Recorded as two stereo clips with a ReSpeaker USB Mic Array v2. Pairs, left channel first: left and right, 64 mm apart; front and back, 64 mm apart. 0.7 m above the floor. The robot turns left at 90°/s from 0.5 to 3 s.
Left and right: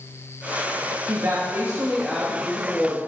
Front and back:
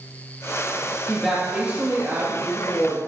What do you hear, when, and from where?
1.1 s a woman speaking: 90° right, 1.0 m; by 3.0 s 100° left, 1.0 m